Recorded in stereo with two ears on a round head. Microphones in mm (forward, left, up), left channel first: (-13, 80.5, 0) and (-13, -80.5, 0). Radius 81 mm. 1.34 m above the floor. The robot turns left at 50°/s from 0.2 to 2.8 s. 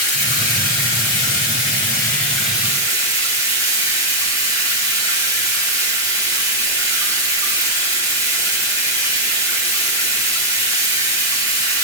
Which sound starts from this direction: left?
Running water, at 0.0 s.